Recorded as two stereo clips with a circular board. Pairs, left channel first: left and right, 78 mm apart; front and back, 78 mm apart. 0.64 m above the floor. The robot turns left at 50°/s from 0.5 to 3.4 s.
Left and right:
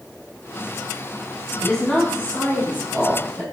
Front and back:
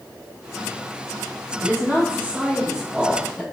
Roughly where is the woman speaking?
Behind.